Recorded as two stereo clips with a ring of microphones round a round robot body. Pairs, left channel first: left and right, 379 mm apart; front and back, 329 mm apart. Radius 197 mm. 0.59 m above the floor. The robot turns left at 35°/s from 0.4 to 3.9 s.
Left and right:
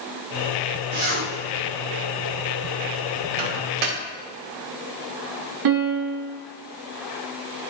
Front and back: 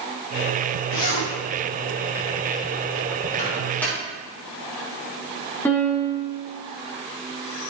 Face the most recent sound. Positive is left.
turn(degrees=-85)